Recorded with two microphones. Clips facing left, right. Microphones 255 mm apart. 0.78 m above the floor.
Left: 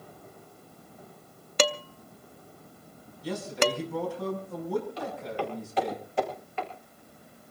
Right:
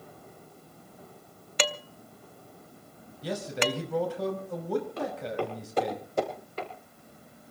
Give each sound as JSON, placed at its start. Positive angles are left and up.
{"t": 1.6, "sound": "dishes clattering", "side_deg": 50, "distance_m": 0.6}
{"t": 3.2, "sound": "a man speaking", "side_deg": -80, "distance_m": 4.5}
{"t": 5.0, "sound": "footsteps", "side_deg": -60, "distance_m": 7.0}